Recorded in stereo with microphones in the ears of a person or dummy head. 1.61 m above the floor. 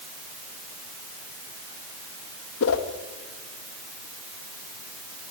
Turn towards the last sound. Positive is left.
turn(degrees=70)  # may be behind; listen again after turning